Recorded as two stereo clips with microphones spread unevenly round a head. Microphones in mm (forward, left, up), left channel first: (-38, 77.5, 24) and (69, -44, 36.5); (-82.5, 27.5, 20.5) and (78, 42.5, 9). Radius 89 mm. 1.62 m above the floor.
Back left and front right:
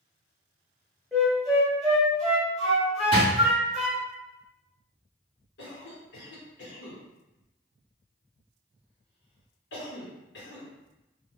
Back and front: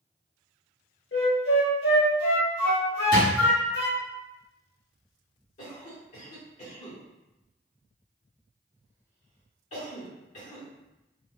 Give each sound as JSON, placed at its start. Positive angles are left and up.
{"t": 1.1, "sound": "a flute", "azimuth_deg": -140, "distance_m": 0.9}
{"t": 3.1, "sound": "a drawer", "azimuth_deg": -130, "distance_m": 1.3}
{"t": 5.6, "sound": "a cough", "azimuth_deg": 140, "distance_m": 1.0}